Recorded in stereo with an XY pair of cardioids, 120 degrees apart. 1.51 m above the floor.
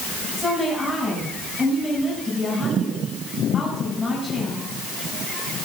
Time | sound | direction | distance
0.4 | a woman speaking | 10° left | 7.5 m